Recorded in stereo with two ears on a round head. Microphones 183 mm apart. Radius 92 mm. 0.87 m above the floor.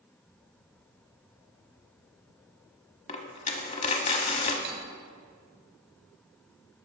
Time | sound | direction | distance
3.1 | a dropped coin | 35° left (ahead or behind) | 1.0 m
4.6 | cutlery clinking | 60° right (ahead or behind) | 1.6 m